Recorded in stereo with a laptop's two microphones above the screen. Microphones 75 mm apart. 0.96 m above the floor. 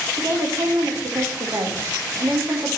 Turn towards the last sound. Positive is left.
turn(degrees=-65)  # may be behind; listen again after turning